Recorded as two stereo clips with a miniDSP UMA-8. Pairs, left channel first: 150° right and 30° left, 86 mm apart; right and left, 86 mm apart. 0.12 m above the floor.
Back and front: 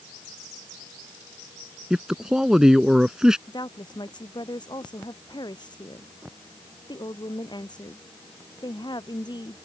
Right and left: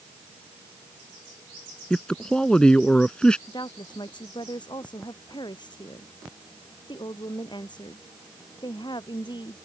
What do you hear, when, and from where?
1.9 s a man speaking: 35° right
3.5 s a woman speaking: 120° right